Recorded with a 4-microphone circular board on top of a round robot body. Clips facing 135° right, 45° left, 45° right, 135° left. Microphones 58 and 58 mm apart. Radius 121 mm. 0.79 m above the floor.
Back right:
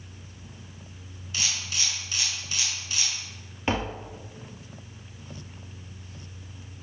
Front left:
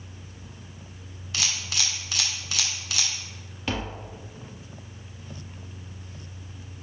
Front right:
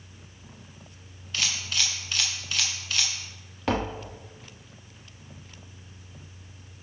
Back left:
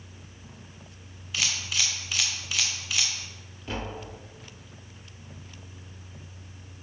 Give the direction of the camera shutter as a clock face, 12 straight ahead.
10 o'clock.